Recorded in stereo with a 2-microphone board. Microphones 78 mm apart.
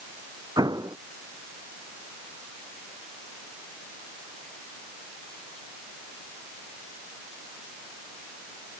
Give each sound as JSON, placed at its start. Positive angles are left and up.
{"t": 0.6, "sound": "an explosion", "side_deg": -60}